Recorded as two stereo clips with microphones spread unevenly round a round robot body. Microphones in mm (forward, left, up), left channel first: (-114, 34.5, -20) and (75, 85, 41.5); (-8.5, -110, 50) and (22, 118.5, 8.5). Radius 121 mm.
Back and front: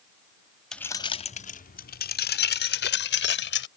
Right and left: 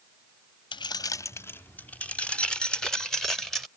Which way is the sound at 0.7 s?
165° right.